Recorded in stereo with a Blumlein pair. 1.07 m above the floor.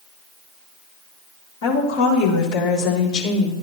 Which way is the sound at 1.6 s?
60° left.